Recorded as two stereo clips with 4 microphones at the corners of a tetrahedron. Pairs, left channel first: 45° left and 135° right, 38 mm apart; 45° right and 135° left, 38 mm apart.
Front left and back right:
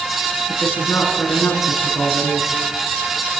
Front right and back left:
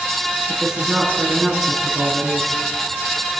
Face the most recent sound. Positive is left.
turn(degrees=60)